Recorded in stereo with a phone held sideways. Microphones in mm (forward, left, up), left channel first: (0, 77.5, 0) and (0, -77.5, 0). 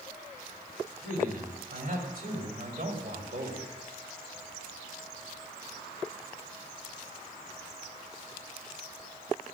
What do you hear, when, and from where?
1.0 s a man speaking: 70° right (ahead or behind), 5.5 m; by 3.7 s 55° right (ahead or behind), 3 m